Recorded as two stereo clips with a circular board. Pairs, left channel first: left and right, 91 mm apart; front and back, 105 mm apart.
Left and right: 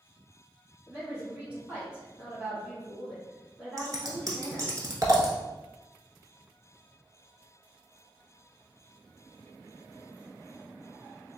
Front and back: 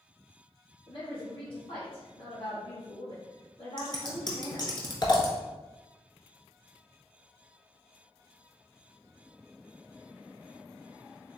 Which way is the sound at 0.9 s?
20° right.